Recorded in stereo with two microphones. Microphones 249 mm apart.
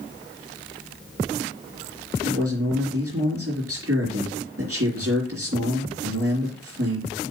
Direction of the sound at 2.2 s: 70° right (ahead or behind).